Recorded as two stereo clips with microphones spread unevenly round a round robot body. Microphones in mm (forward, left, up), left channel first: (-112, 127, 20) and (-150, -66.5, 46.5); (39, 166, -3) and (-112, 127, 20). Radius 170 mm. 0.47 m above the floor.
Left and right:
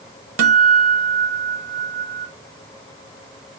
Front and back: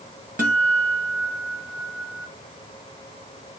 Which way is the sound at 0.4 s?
100° right.